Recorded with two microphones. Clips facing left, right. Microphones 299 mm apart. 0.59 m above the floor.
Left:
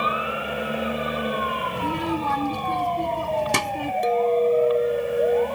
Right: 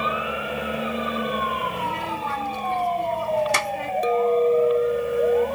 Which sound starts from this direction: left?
A child speaking, at 1.8 s.